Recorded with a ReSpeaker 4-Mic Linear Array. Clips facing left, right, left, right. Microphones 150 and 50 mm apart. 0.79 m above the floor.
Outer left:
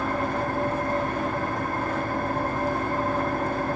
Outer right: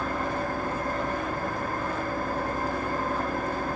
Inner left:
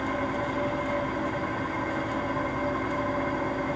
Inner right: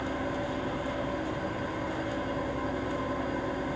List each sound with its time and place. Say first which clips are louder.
0.0 s an engine running: outer left 3 dB, inner left 4 dB; 70° left (ahead or behind), 2.5 m